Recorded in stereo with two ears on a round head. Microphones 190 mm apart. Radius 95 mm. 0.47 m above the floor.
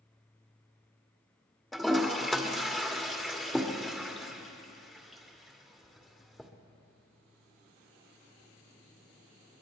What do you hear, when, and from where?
1.7 s a toilet flushing: centre (ahead or behind), 1.3 m